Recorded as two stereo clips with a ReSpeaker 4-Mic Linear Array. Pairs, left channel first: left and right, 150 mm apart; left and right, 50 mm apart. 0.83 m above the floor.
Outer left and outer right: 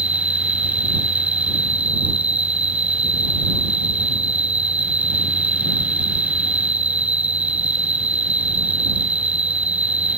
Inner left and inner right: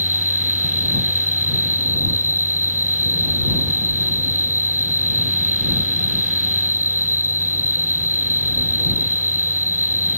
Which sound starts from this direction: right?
An insect, at 0.0 s.